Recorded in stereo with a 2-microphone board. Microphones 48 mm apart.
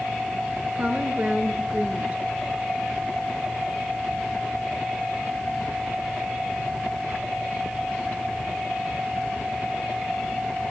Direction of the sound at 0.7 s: 30° right (ahead or behind).